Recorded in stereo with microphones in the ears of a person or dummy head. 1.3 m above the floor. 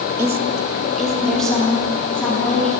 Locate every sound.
0.2 s a woman speaking: 10° right (ahead or behind), 0.6 m; by 2.7 s 10° left (ahead or behind), 3.5 m